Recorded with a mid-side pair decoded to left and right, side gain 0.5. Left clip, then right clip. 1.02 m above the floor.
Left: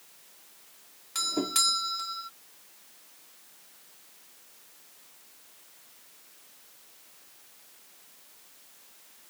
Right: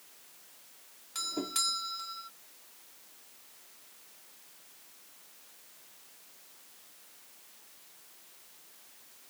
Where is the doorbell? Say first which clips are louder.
Left 6 dB; 35° left.